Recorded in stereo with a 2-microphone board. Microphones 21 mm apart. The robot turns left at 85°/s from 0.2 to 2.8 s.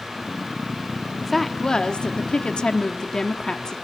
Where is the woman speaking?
Straight behind, 1.2 m; by 3.8 s 45° left, 1.2 m.